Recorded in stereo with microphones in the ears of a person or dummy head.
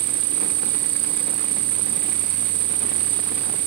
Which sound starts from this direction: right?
An insect, at 0.0 s.